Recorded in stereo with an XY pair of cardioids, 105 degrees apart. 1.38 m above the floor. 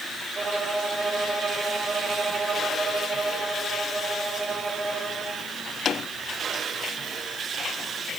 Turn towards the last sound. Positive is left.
turn(degrees=-30)